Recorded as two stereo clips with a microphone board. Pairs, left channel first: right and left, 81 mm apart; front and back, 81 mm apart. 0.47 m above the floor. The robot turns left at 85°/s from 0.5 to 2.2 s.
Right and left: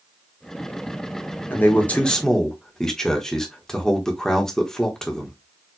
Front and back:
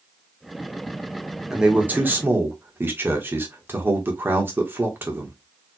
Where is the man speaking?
105° right, 1.1 m; by 5.4 s 165° right, 1.1 m.